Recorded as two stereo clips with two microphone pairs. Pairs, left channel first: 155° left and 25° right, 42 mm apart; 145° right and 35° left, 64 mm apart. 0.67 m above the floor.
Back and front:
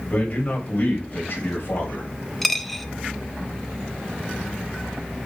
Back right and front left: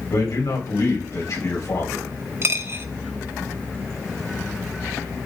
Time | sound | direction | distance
0.1 | a man speaking | 155° right | 3.5 m
2.4 | a dropped coin | 75° left | 0.6 m